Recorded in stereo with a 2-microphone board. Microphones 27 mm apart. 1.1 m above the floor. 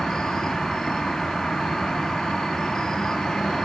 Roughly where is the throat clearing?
No throat clearing in this recording.